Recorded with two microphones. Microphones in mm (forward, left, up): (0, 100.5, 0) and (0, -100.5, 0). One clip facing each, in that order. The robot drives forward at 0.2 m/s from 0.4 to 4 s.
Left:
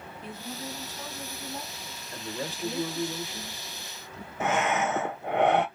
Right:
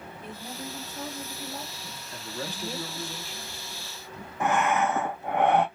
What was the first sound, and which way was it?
A woman speaking, 40° right (ahead or behind).